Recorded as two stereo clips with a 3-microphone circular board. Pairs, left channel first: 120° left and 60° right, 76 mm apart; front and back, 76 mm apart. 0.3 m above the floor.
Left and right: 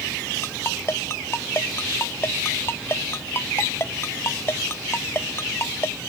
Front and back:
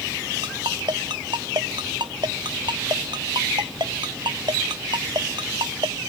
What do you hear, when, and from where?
0.4 s a ringtone: 175° left